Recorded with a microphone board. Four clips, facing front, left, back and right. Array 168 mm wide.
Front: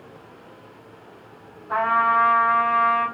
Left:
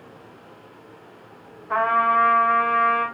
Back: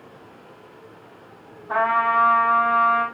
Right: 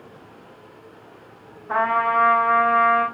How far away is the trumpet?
About 5 m.